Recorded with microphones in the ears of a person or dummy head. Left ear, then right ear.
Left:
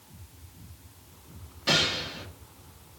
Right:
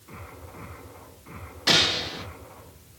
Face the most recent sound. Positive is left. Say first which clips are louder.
# right 4 dB
turn(degrees=-30)  # may be behind; listen again after turning